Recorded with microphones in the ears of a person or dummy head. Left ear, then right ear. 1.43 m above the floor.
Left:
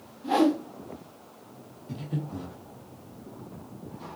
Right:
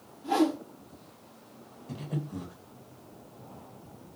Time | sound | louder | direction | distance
0.2 | a whoosh | left 3 dB | centre (ahead or behind) | 0.7 m
1.9 | breathing | left 2 dB | 20° right (ahead or behind) | 1.0 m